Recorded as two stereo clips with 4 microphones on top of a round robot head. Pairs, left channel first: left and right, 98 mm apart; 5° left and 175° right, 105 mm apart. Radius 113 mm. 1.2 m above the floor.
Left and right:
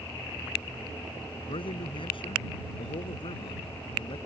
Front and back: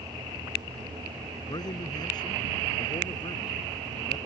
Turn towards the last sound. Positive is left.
turn(degrees=50)